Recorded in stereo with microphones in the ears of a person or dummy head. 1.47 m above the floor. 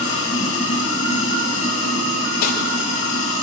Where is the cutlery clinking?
55° left (ahead or behind), 3.5 m.